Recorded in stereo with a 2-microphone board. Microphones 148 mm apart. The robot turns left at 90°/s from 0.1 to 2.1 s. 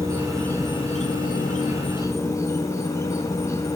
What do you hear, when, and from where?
0.0 s an insect: 160° right, 0.8 m; by 3.8 s 20° left, 0.8 m